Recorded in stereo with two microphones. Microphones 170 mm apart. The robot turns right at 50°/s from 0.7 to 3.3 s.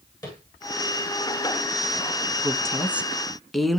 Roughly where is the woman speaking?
Centre.